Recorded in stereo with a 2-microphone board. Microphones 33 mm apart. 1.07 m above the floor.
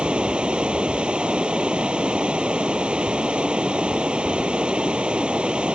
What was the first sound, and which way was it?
Running water, 30° right (ahead or behind).